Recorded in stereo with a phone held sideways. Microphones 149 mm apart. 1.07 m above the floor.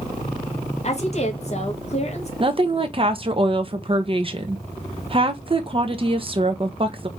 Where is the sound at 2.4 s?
35° right (ahead or behind), 0.9 m.